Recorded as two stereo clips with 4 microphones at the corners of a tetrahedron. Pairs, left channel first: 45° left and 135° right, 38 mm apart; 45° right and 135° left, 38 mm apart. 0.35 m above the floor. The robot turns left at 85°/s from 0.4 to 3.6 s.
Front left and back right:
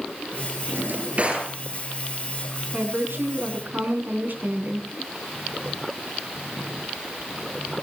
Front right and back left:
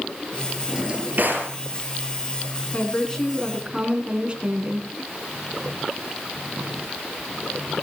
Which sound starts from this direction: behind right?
A drawer, at 0.7 s.